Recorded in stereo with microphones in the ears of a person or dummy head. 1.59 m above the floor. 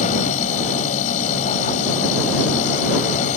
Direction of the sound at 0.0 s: 45° left (ahead or behind).